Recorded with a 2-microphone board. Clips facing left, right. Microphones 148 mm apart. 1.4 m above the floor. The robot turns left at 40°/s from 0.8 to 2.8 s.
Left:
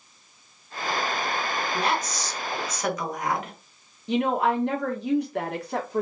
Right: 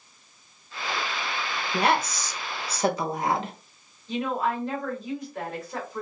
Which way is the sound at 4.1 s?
70° left (ahead or behind).